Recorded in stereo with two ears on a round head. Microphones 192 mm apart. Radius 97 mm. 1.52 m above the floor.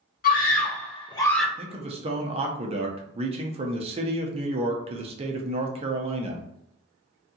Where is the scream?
45° left (ahead or behind), 1.4 m; by 1.5 s centre (ahead or behind), 0.6 m.